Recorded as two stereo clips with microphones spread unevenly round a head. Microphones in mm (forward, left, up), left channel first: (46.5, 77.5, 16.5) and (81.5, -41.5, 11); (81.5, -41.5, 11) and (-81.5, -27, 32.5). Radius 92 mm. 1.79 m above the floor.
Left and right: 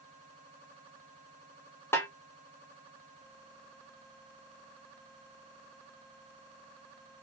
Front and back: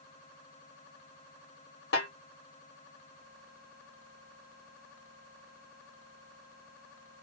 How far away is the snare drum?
About 1.2 m.